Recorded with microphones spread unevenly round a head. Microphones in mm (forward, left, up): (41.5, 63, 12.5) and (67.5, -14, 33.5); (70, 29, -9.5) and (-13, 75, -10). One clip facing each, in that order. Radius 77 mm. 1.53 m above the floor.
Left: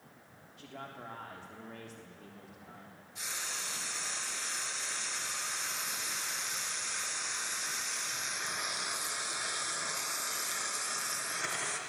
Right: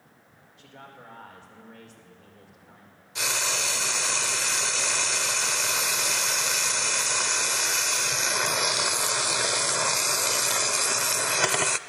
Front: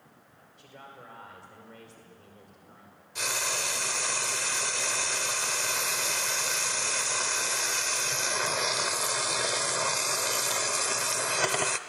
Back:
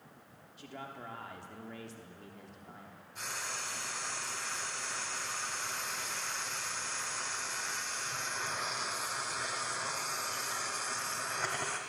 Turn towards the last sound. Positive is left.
turn(degrees=-75)